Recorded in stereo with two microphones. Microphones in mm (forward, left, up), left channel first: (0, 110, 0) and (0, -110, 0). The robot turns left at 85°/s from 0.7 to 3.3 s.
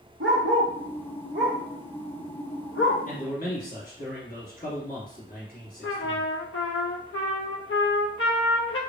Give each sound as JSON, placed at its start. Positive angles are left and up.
{"t": 0.2, "sound": "a dog barking", "side_deg": -60, "distance_m": 1.3}
{"t": 3.1, "sound": "a man speaking", "side_deg": 40, "distance_m": 1.5}
{"t": 5.8, "sound": "a trumpet", "side_deg": 75, "distance_m": 0.5}